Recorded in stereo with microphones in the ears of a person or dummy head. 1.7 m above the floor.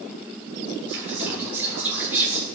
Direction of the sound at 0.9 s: 10° right (ahead or behind).